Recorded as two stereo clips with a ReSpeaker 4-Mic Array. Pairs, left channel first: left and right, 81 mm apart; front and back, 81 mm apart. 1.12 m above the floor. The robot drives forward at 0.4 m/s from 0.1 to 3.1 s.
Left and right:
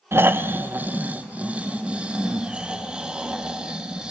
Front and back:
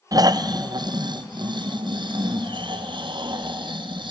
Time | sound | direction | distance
0.1 | snoring | 150° right | 0.6 m